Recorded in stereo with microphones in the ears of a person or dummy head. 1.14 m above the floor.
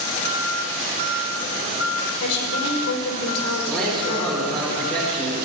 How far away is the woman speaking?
About 5.5 m.